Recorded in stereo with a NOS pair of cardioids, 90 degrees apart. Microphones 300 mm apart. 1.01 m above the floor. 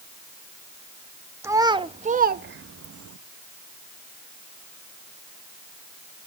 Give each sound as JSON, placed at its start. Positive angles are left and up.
{"t": 1.4, "sound": "a child speaking", "azimuth_deg": -10, "distance_m": 1.2}